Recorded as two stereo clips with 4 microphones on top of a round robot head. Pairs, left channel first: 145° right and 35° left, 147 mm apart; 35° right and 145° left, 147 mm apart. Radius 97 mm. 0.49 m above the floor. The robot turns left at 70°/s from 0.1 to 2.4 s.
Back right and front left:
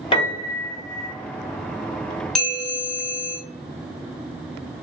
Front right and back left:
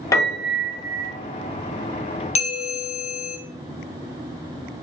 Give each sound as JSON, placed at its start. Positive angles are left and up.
{"t": 0.1, "sound": "a piano", "azimuth_deg": -100, "distance_m": 1.0}
{"t": 2.4, "sound": "a bell", "azimuth_deg": -60, "distance_m": 0.6}